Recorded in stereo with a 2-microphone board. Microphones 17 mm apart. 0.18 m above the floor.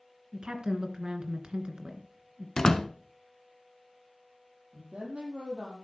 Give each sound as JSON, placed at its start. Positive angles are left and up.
{"t": 0.3, "sound": "a woman speaking", "side_deg": -50, "distance_m": 2.5}
{"t": 2.6, "sound": "a door slam", "side_deg": 35, "distance_m": 1.1}
{"t": 4.7, "sound": "a woman speaking", "side_deg": -75, "distance_m": 5.5}